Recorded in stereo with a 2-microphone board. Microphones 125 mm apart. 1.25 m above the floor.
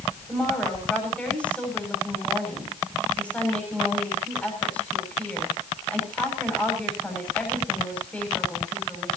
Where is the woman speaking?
10° left (ahead or behind), 7.5 m.